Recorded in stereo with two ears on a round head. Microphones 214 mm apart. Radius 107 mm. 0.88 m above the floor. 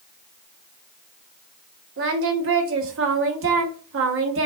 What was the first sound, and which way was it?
Singing, 55° right (ahead or behind).